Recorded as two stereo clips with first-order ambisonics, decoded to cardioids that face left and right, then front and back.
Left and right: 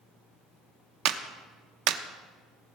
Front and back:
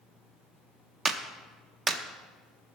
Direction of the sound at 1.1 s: 100° right.